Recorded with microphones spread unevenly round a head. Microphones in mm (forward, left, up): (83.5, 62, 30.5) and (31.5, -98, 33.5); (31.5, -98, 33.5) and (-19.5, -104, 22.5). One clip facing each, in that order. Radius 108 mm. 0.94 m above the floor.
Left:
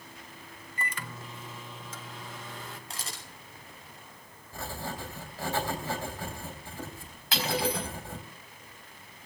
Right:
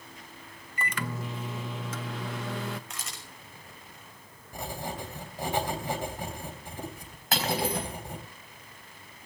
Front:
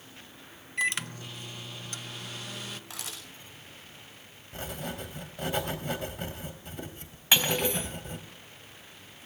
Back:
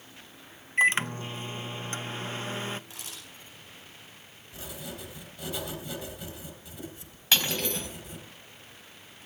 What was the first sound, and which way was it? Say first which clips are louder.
A microwave: right 6 dB, back 6 dB; 125° right.